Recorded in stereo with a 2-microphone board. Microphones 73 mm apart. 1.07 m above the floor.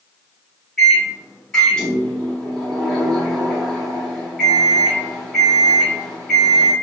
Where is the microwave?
10° left (ahead or behind), 0.9 m.